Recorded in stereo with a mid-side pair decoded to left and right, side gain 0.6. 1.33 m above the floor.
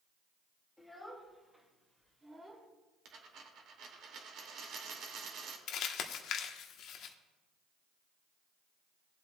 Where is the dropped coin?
60° right, 2 m.